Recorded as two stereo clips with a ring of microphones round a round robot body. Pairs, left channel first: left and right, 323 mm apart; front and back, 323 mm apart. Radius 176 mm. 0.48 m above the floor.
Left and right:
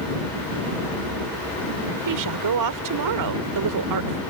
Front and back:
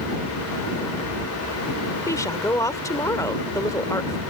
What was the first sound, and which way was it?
A woman speaking, 80° right.